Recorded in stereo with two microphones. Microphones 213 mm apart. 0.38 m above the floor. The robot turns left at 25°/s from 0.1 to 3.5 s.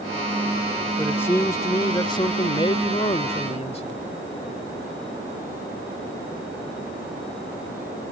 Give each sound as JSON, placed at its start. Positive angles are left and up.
{"t": 1.0, "sound": "a man speaking", "side_deg": 10}